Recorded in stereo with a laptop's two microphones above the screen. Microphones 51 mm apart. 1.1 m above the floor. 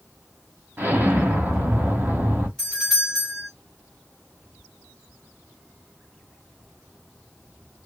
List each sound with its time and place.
0.8 s an explosion: 35° right (ahead or behind), 1.1 m
2.6 s a doorbell: 5° left (ahead or behind), 1.2 m